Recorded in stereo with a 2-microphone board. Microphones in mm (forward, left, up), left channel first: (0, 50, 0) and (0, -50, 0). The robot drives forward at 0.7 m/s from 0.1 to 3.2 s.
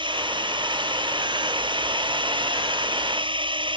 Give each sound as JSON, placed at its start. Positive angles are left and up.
{"t": 0.0, "sound": "a drone", "side_deg": -55}